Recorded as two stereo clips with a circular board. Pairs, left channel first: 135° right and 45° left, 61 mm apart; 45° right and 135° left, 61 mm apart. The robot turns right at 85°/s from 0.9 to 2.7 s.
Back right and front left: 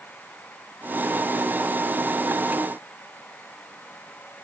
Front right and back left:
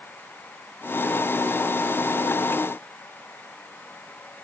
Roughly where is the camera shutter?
No camera shutter in this recording.